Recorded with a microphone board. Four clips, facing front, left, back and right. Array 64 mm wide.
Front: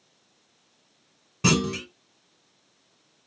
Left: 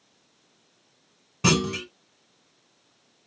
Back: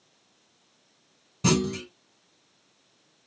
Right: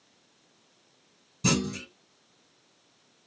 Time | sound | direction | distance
1.4 | a clunk | 50° left | 4 m